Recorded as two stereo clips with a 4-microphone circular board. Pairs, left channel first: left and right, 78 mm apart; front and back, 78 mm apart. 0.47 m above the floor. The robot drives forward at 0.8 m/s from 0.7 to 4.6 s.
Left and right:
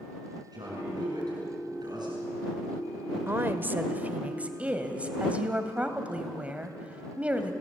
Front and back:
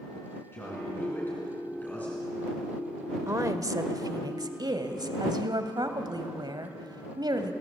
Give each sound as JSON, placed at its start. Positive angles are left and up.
{"t": 0.5, "sound": "a man speaking", "azimuth_deg": -60, "distance_m": 5.5}
{"t": 3.3, "sound": "a woman speaking", "azimuth_deg": -140, "distance_m": 1.2}